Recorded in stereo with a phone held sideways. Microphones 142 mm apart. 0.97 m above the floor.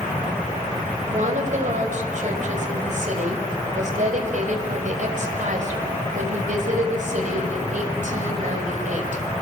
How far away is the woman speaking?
About 5.5 m.